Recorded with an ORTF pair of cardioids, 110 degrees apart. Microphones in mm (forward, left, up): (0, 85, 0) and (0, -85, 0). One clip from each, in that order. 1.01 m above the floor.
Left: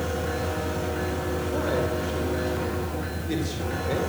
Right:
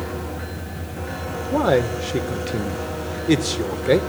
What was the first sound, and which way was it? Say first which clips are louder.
A man speaking: right 9 dB; 70° right.